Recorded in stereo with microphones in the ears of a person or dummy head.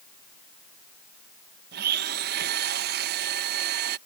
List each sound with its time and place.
1.7 s a blender: 55° right (ahead or behind)